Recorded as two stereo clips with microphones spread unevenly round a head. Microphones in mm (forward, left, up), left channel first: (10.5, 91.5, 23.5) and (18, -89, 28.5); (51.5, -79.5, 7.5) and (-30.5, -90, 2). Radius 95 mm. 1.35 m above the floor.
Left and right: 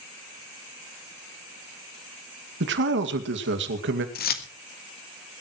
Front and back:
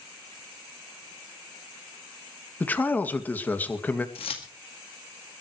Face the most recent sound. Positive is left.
turn(degrees=50)